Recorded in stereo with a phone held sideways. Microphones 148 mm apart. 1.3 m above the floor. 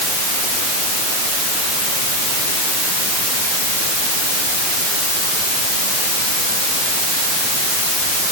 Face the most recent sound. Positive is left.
No sound to turn to.